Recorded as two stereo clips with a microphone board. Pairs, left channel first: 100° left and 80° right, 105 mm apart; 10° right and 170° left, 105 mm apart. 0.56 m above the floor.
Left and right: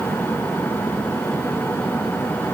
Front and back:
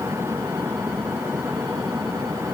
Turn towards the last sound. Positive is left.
No sound to turn to.